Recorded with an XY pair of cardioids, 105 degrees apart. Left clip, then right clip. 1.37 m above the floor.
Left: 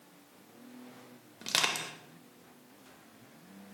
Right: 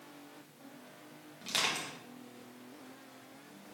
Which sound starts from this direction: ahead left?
Crushing, at 1.4 s.